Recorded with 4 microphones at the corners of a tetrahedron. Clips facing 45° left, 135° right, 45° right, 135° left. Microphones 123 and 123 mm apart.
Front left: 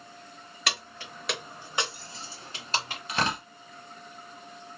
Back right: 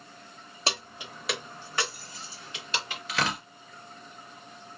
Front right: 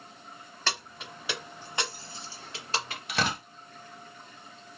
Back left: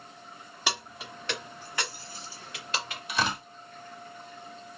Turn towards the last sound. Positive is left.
turn(degrees=-20)